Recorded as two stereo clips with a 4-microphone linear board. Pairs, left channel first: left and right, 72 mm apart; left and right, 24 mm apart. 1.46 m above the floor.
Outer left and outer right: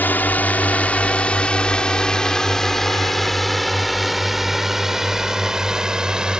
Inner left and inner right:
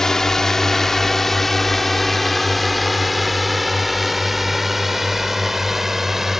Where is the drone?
25° left (ahead or behind); by 6.4 s 10° right (ahead or behind).